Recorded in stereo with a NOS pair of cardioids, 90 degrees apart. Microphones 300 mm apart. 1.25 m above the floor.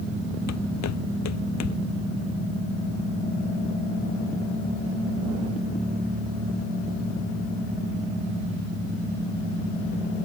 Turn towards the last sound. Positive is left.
turn(degrees=65)